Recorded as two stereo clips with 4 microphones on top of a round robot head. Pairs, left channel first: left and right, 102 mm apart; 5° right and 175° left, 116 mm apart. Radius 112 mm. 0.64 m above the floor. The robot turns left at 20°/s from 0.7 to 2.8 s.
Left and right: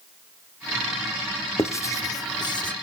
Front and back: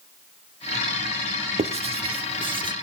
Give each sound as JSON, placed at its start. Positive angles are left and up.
{"t": 1.6, "sound": "writing", "azimuth_deg": 155, "distance_m": 1.6}